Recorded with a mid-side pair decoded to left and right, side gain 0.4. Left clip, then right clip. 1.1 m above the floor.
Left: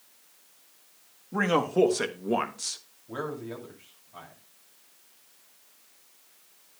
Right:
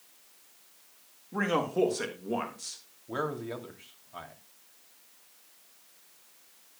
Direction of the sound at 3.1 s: 35° right.